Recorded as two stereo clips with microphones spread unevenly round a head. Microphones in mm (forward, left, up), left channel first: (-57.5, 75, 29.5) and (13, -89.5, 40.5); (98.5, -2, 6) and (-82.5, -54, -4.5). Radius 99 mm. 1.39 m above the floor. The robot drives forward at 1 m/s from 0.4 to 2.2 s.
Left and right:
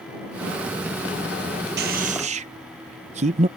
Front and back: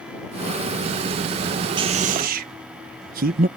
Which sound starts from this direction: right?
A man speaking, at 1.8 s.